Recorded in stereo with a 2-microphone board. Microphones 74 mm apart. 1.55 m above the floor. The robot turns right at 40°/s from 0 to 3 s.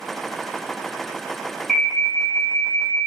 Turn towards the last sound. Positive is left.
turn(degrees=50)